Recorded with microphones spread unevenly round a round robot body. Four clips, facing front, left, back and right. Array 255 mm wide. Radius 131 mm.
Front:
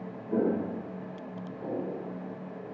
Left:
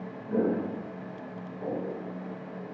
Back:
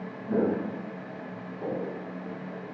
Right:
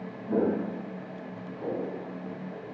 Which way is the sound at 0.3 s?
155° right.